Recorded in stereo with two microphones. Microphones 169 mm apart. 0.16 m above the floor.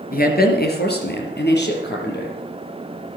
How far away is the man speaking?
About 3 m.